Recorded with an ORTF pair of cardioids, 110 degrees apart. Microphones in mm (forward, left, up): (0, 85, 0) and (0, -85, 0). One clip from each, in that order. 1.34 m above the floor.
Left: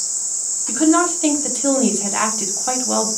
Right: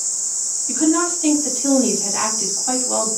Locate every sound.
0.7 s a woman speaking: 45° left, 0.9 m